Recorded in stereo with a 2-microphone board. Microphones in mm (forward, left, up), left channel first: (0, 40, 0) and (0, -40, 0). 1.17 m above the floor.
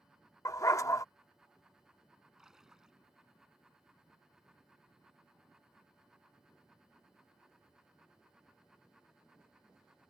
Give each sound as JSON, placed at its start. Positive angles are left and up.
{"t": 0.5, "sound": "a dog barking", "side_deg": 40}
{"t": 2.4, "sound": "a splash", "side_deg": -5}